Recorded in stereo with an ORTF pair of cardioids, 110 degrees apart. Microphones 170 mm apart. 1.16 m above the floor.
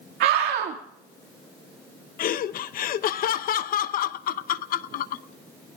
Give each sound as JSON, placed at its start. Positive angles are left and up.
{"t": 0.2, "sound": "a scream", "azimuth_deg": -70, "distance_m": 2.0}
{"t": 2.2, "sound": "laughter", "azimuth_deg": 60, "distance_m": 0.9}